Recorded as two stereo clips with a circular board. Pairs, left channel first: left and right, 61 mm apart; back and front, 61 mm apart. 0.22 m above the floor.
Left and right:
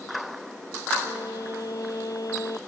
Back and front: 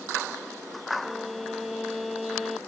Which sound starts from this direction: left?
A violin, at 1.0 s.